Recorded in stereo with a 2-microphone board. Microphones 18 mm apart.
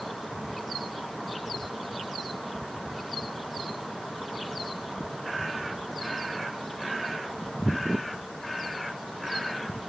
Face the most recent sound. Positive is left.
No sound to turn to.